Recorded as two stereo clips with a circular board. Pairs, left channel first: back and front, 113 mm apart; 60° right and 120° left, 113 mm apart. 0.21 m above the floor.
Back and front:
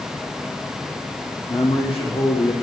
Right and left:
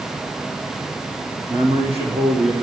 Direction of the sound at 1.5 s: 150° left.